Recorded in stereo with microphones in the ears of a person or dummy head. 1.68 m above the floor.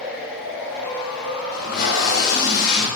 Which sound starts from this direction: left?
Tape being pulled, at 1.5 s.